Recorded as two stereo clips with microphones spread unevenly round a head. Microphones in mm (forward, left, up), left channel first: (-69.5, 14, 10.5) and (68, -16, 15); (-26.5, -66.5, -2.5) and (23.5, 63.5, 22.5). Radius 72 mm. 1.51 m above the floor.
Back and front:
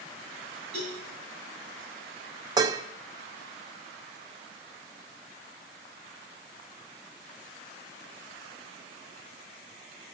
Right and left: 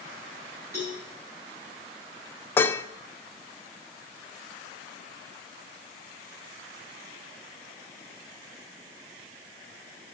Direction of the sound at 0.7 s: Straight ahead.